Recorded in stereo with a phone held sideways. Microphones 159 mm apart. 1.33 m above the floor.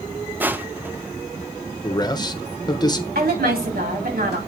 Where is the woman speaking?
75° right (ahead or behind), 3.5 m.